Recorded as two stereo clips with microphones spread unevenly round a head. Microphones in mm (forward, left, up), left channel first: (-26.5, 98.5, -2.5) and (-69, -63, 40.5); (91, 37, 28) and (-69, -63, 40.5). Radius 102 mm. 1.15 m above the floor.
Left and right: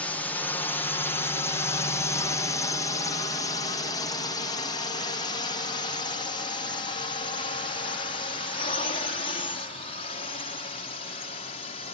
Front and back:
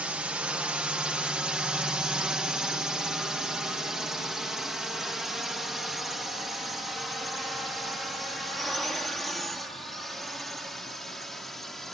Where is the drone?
130° left; by 11.9 s 120° left.